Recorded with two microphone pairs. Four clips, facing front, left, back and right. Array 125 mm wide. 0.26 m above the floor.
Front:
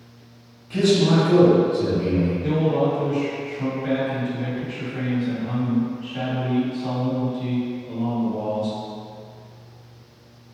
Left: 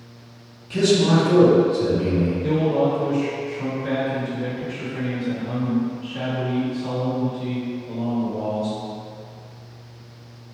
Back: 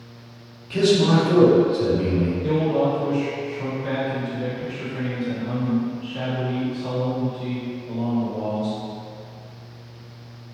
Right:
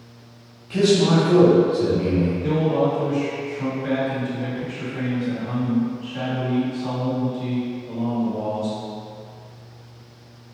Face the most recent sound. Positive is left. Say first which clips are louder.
# left 2 dB, back 2 dB
turn(degrees=-40)